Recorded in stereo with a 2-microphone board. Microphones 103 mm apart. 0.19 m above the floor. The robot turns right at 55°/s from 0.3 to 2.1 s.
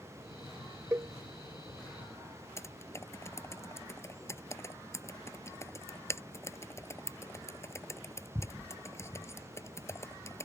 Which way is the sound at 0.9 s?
25° right (ahead or behind).